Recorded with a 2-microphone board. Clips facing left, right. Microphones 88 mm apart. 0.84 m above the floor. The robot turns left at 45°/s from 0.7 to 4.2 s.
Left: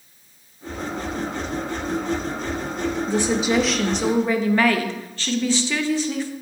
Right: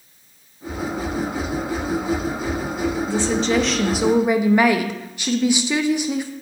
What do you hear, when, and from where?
3.1 s a woman speaking: 30° left, 0.6 m; by 6.3 s 20° right, 0.6 m